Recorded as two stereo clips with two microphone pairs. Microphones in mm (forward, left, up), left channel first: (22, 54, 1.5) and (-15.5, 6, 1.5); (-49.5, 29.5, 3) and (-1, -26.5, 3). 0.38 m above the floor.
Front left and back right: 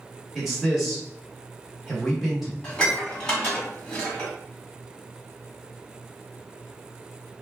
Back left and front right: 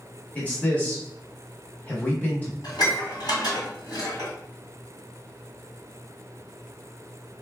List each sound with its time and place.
0.3 s a man speaking: 145° left, 1.1 m
2.6 s dishes clattering: 125° left, 1.5 m